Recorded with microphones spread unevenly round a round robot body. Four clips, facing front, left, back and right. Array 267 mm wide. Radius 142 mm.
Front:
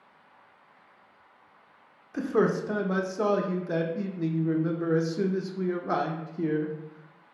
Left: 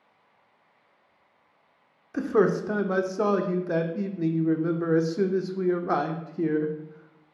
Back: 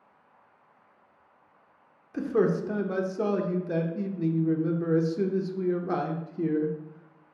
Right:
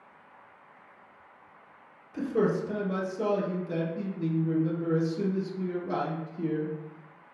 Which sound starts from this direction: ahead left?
A man speaking, at 2.1 s.